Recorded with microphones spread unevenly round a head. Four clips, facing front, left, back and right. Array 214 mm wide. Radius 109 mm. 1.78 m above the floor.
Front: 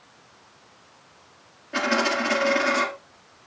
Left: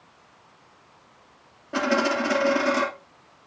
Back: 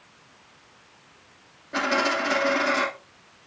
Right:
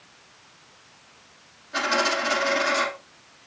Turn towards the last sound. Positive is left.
turn(degrees=80)